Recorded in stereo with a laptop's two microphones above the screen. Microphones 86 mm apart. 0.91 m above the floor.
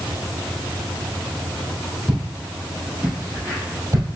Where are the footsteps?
5° right (ahead or behind), 1.8 m; by 4.1 s 35° right (ahead or behind), 2 m.